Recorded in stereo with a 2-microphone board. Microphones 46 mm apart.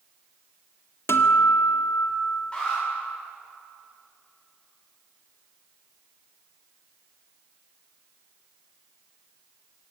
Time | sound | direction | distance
1.1 | a guitar | 65° left (ahead or behind) | 1.7 m
2.5 | an alarm | 20° left (ahead or behind) | 9 m